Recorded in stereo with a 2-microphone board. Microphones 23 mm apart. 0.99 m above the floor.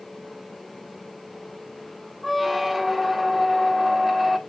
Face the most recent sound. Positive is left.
turn(degrees=-5)  # may be behind; listen again after turning